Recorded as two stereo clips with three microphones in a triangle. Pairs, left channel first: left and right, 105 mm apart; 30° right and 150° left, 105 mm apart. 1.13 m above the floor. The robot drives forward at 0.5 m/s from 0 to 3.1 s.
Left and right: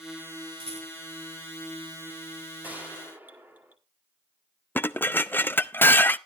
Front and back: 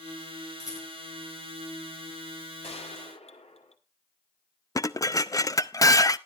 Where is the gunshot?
15° right, 2 m.